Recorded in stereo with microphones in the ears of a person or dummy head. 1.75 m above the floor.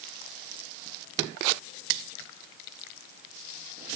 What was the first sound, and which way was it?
Only background noise.